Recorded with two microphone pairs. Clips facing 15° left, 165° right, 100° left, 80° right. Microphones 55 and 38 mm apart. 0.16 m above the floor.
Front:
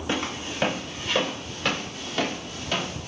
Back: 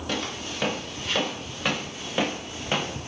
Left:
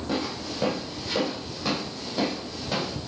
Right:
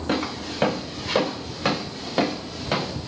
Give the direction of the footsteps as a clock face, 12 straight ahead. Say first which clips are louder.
Front 3 dB, right 4 dB; 2 o'clock.